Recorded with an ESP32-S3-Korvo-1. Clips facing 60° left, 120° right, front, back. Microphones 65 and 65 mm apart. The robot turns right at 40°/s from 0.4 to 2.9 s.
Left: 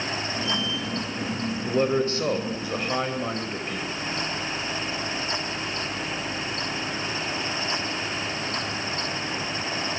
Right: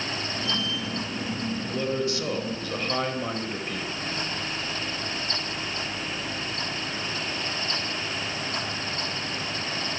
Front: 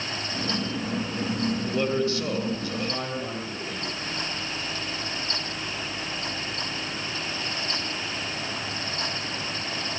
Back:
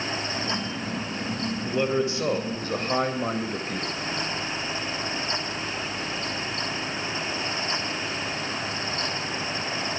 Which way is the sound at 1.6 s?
95° left.